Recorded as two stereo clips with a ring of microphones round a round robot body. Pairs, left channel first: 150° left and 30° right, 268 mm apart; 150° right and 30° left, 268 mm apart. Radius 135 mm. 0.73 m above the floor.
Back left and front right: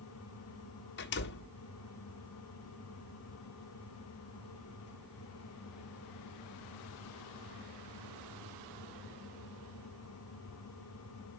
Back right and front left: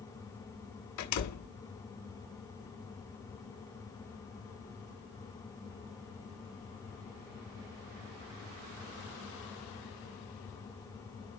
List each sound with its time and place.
1.0 s a door slam: 160° right, 1.5 m